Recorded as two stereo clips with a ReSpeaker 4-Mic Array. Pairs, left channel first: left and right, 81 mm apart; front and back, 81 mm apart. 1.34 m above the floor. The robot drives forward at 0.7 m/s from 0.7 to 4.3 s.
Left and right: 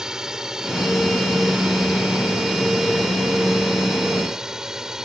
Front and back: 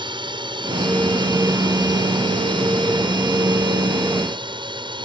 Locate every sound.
0.0 s a drone: 175° right